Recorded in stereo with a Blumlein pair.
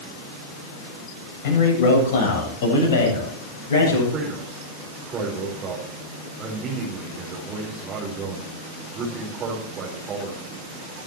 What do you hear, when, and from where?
1.4 s a man speaking: 50° left, 8 m
4.1 s a man speaking: 25° right, 4.5 m